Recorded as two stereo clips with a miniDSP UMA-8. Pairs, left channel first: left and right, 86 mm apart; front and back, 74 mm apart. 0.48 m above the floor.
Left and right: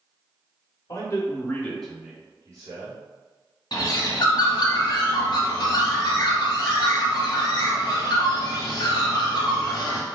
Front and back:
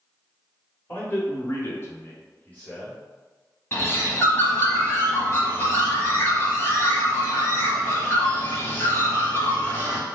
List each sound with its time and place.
0.9 s a man speaking: 60° left, 1.7 m; by 3.0 s 70° right, 1.7 m
3.7 s a bird: 55° left, 0.9 m